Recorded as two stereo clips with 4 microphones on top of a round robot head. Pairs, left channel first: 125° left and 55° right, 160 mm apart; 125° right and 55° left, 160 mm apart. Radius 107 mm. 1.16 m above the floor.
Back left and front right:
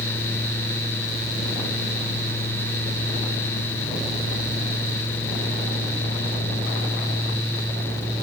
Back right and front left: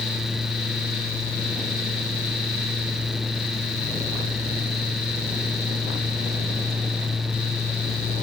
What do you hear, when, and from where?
Only background noise.